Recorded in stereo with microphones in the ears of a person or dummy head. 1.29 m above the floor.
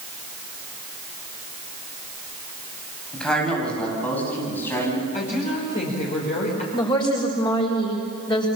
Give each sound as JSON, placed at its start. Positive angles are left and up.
{"t": 3.1, "sound": "a man speaking", "side_deg": 0, "distance_m": 9.5}
{"t": 5.1, "sound": "a woman speaking", "side_deg": 45, "distance_m": 5.0}
{"t": 6.7, "sound": "a woman speaking", "side_deg": 25, "distance_m": 5.5}